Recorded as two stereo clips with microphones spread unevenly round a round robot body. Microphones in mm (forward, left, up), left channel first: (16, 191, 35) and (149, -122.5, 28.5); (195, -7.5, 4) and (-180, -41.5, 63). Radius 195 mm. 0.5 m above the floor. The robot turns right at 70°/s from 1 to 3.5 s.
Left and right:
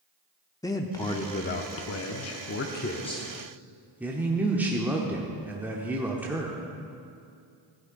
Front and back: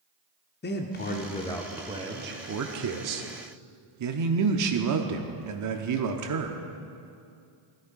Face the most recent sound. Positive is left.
turn(degrees=-150)